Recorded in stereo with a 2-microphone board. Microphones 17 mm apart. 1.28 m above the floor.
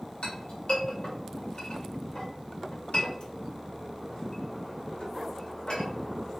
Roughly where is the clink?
Left.